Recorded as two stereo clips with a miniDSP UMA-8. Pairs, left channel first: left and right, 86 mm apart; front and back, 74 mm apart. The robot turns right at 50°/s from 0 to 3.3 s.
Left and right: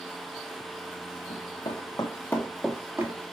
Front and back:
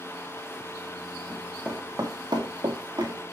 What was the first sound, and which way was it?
Running footsteps, 80° left.